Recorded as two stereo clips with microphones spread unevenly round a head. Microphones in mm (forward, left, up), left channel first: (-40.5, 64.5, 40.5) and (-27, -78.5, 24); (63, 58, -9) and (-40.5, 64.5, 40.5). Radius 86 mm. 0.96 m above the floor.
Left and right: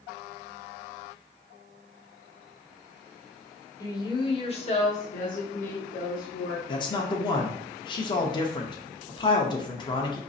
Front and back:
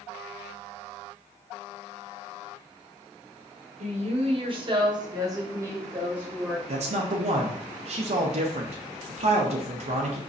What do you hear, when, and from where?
3.8 s a woman speaking: 160° left, 1.1 m; by 6.6 s 90° left, 1.8 m
6.7 s a man speaking: 155° left, 0.7 m